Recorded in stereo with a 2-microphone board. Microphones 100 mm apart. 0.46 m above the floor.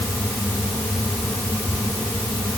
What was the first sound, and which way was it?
Only background noise.